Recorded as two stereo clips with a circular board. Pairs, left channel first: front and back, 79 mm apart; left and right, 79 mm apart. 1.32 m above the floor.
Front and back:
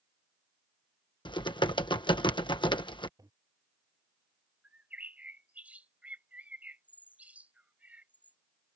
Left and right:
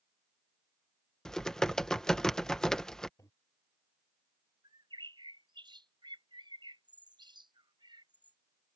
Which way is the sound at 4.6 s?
110° right.